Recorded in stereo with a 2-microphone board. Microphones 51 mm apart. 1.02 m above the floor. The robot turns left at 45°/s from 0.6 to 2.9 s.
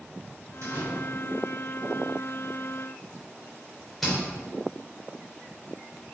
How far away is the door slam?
About 3 m.